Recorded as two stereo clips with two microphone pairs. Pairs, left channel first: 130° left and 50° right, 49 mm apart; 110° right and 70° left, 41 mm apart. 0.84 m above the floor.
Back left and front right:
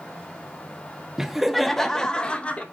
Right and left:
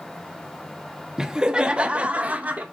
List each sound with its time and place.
1.2 s laughter: 15° left, 1.0 m; by 2.6 s 80° left, 1.2 m